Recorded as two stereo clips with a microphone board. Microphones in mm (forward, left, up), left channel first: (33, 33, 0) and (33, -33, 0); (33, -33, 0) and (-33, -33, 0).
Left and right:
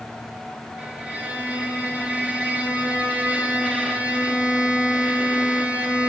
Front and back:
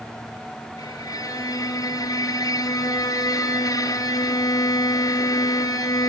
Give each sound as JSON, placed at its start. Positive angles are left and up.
{"t": 0.8, "sound": "a violin", "azimuth_deg": -20, "distance_m": 5.5}